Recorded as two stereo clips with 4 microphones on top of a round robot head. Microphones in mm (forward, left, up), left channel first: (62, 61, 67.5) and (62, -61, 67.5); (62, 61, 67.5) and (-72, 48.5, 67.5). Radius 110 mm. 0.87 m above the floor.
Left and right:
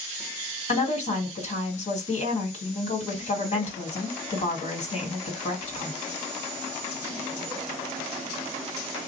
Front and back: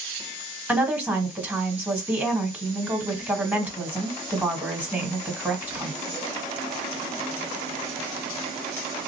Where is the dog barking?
No dog barking in this recording.